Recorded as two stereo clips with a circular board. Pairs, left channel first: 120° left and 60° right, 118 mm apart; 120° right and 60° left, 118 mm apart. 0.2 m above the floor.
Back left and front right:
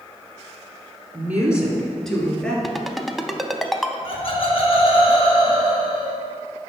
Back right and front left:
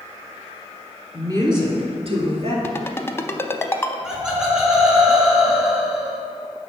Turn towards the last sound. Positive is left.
turn(degrees=145)